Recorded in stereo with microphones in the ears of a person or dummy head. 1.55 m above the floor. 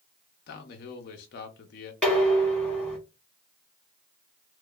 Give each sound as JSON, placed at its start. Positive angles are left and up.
{"t": 0.5, "sound": "a man speaking", "side_deg": 50, "distance_m": 0.6}
{"t": 2.0, "sound": "dishes clattering", "side_deg": 5, "distance_m": 1.0}